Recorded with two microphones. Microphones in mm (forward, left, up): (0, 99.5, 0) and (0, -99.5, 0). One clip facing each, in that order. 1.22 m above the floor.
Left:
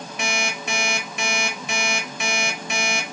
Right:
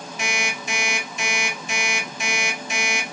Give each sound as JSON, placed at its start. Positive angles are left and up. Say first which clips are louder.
{"t": 0.2, "sound": "an alarm clock", "louder": "left 2 dB", "side_deg": 65, "distance_m": 0.9}